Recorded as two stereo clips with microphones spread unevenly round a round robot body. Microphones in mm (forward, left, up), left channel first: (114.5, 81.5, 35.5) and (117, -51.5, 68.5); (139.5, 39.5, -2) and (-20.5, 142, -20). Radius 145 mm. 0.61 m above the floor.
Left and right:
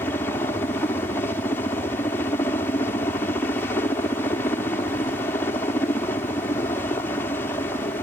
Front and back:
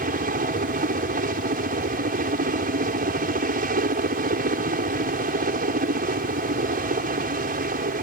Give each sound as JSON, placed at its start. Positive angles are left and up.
{"t": 0.0, "sound": "a helicopter", "azimuth_deg": 145}